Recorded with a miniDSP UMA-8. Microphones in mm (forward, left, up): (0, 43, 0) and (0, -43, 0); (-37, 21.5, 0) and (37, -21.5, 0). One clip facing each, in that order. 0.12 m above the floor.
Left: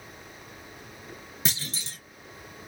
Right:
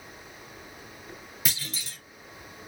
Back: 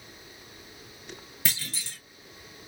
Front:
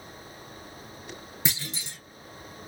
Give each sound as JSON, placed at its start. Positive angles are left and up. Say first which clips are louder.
{"t": 1.4, "sound": "a clunk", "louder": "left 2 dB, front 2 dB", "azimuth_deg": 35, "distance_m": 1.0}